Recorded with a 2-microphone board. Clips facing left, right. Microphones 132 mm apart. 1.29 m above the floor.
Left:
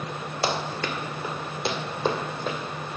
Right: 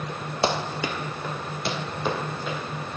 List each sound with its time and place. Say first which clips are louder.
0.4 s running footsteps: right 2 dB; 25° right (ahead or behind), 1.4 m; by 2.6 s 35° left (ahead or behind), 3 m